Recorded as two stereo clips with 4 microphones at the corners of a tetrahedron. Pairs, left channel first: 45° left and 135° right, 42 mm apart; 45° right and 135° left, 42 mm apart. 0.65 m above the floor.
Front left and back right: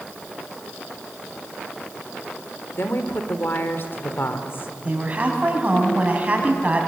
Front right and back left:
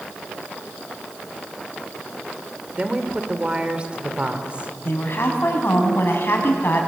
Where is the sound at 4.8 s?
75° right, 5.5 m.